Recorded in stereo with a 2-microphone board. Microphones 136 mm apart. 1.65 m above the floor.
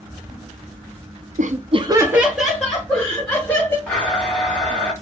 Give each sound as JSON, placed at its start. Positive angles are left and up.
{"t": 1.4, "sound": "laughter", "side_deg": -70, "distance_m": 0.6}
{"t": 3.9, "sound": "a blender", "side_deg": 10, "distance_m": 2.0}